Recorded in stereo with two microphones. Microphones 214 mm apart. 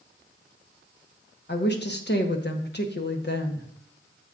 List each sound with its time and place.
1.5 s a woman speaking: 55° left (ahead or behind), 1.1 m